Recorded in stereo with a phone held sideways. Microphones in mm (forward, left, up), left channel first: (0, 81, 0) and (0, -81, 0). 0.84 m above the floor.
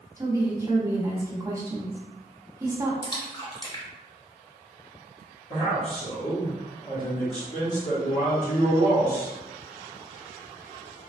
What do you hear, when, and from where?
0.2 s a woman speaking: 20° right (ahead or behind), 0.9 m
3.0 s a splash: 30° left (ahead or behind), 0.8 m
5.5 s a man speaking: 45° left (ahead or behind), 1.5 m